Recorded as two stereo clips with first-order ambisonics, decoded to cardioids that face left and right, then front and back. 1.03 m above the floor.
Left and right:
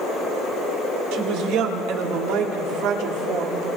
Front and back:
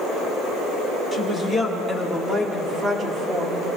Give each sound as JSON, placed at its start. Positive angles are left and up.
{"t": 1.1, "sound": "a woman speaking", "azimuth_deg": -90, "distance_m": 3.0}